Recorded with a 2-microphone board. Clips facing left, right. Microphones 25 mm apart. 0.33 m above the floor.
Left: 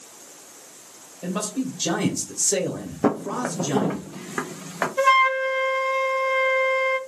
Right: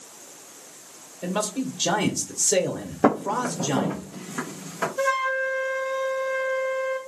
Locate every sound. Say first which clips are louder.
1.2 s a man speaking: even; 20° right (ahead or behind), 1.4 m
3.0 s footsteps: right 2 dB; 25° right (ahead or behind), 0.6 m; by 4.9 s 40° left (ahead or behind), 3 m
5.0 s a flute: left 7 dB; 45° left (ahead or behind), 1.3 m